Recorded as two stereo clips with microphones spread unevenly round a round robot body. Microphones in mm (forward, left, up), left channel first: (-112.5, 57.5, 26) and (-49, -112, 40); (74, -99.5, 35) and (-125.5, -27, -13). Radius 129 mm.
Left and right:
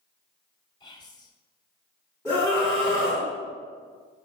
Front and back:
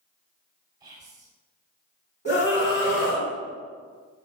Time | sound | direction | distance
0.8 | whispering | 140° left | 1.7 m
2.2 | a scream | 35° left | 3 m